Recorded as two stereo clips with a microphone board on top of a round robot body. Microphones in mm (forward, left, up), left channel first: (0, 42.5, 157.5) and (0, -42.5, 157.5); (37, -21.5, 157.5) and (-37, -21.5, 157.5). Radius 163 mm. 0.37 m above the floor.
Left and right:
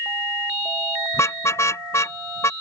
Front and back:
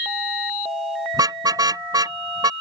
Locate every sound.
1.1 s a car horn: 145° left